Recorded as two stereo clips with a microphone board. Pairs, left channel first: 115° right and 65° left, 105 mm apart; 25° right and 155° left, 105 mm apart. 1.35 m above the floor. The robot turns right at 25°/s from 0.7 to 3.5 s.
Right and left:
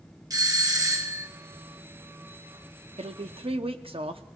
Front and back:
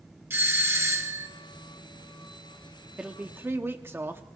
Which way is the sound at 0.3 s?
100° left.